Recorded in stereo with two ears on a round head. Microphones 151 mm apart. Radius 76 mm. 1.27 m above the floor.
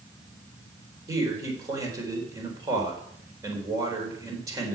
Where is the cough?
No cough in this recording.